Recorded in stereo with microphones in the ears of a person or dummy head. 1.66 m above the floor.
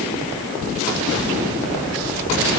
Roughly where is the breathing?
No breathing in this recording.